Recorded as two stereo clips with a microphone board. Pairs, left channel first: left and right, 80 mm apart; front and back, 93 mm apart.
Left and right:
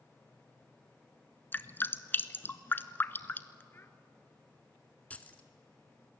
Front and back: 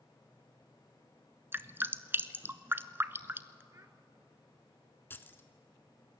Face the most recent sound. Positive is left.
turn(degrees=40)